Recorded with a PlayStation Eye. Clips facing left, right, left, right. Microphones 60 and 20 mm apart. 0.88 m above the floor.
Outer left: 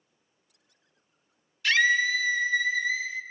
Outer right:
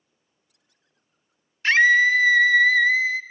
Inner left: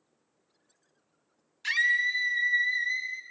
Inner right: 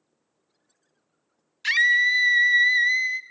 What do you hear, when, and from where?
1.6 s a scream: 35° right (ahead or behind), 0.8 m; by 3.2 s 65° right (ahead or behind), 1.0 m